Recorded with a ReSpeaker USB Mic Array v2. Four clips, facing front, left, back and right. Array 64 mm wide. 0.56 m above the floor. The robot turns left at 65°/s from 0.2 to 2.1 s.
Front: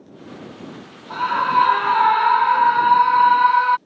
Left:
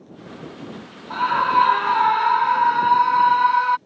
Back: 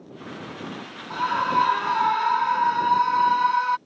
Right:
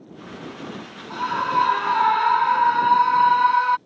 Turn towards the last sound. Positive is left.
turn(degrees=5)